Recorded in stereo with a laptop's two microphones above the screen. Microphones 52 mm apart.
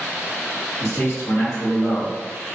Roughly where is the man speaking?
Left.